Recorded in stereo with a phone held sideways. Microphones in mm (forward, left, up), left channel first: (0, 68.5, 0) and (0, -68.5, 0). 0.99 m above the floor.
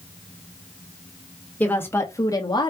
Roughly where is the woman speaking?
Centre.